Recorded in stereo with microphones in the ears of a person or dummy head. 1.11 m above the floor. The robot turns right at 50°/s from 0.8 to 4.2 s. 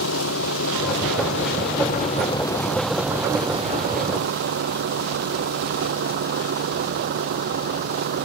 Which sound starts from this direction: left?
A vehicle, at 0.0 s.